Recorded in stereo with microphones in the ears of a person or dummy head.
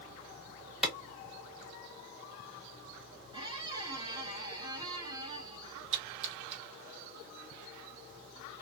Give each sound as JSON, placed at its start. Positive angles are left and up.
{"t": 0.8, "sound": "a clap", "side_deg": -5, "distance_m": 0.9}
{"t": 3.3, "sound": "a squeak", "side_deg": -25, "distance_m": 0.9}
{"t": 5.9, "sound": "a splash", "side_deg": -35, "distance_m": 1.0}